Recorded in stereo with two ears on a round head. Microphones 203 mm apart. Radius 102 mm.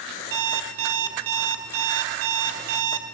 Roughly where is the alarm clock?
Right.